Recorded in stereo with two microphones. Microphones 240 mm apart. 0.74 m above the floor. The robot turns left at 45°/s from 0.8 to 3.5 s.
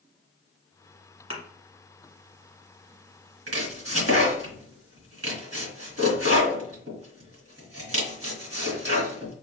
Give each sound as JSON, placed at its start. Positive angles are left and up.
{"t": 1.3, "sound": "a thud", "side_deg": -25, "distance_m": 1.5}
{"t": 3.5, "sound": "chopping", "side_deg": -70, "distance_m": 1.3}